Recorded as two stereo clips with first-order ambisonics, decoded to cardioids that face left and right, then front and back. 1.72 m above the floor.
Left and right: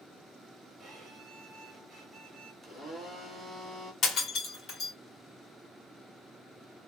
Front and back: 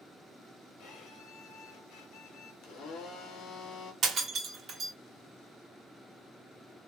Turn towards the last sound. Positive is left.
turn(degrees=135)